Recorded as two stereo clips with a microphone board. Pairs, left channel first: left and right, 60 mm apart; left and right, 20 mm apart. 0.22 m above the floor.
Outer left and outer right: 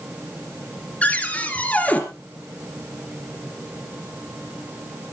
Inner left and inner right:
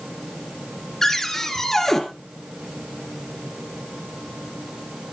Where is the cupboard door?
25° left (ahead or behind), 3 m.